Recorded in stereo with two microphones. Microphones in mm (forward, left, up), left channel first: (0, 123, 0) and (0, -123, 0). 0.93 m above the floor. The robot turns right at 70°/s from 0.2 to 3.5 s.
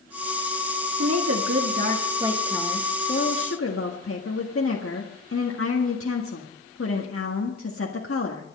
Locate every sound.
1.0 s a woman speaking: 110° right, 1.7 m; by 8.4 s 70° left, 1.7 m